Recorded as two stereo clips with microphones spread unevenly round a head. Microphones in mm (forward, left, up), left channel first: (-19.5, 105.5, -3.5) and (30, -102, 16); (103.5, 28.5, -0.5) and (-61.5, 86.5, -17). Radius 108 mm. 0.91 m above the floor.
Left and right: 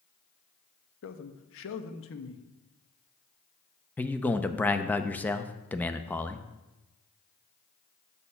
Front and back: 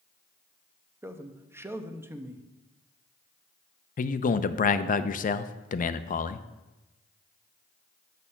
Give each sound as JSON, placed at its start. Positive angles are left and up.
{"t": 1.0, "sound": "a man speaking", "azimuth_deg": 85, "distance_m": 0.9}
{"t": 4.0, "sound": "a man speaking", "azimuth_deg": 25, "distance_m": 0.5}